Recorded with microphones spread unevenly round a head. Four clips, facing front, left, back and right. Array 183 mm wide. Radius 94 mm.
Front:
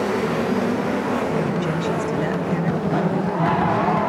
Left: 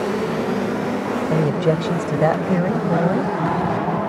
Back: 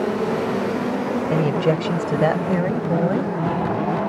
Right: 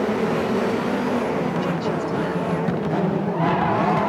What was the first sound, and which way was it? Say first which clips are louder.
A woman speaking: left 4 dB, back 3 dB; 135° left.